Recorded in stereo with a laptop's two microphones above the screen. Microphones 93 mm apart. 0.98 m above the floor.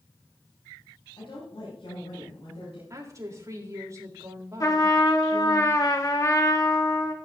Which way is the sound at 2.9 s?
35° right (ahead or behind).